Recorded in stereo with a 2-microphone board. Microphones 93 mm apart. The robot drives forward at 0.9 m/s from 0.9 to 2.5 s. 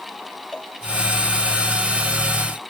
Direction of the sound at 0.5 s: 10° left (ahead or behind).